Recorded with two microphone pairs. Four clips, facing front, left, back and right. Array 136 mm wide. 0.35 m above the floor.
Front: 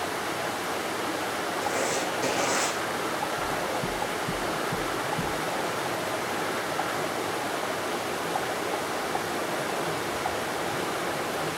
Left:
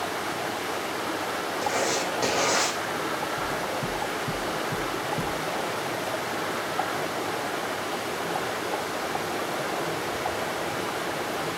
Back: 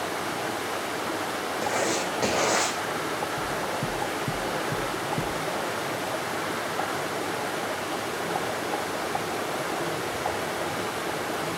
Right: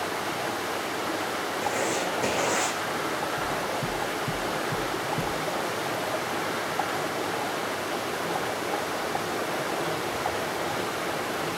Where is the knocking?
160° left, 7.5 m.